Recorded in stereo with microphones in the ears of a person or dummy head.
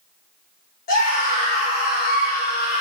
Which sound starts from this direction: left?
A scream, at 0.9 s.